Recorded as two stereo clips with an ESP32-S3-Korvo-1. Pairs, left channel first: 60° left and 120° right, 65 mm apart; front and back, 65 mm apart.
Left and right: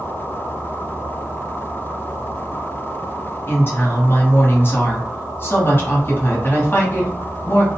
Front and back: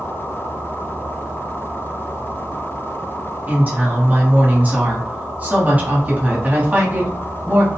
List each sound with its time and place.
3.5 s a woman speaking: 115° left, 1.0 m